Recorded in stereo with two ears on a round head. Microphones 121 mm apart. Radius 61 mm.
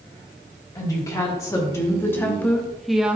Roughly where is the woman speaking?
Left.